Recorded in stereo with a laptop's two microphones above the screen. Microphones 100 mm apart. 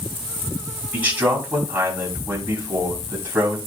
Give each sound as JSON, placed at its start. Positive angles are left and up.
{"t": 0.9, "sound": "a man speaking", "side_deg": -20, "distance_m": 5.5}